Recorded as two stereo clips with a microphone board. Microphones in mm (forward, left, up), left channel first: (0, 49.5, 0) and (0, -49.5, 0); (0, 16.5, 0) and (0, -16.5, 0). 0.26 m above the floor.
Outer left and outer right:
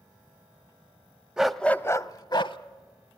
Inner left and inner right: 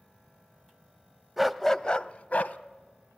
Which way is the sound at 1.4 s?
5° right (ahead or behind).